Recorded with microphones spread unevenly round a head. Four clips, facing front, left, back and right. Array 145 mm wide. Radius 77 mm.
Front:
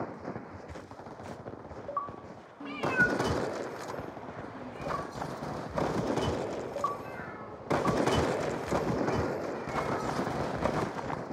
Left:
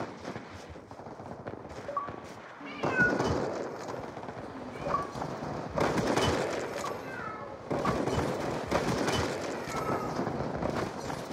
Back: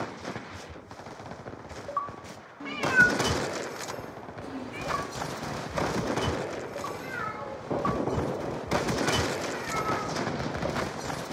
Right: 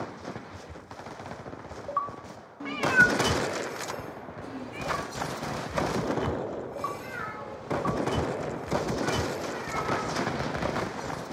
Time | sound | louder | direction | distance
2.6 | a cat meowing | right 5 dB, back 5 dB | 70° right | 0.9 m